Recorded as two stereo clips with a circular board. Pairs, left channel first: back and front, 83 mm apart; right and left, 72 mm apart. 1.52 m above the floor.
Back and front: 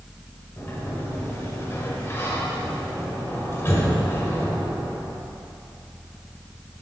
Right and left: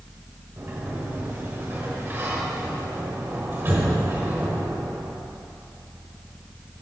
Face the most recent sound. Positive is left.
turn(degrees=135)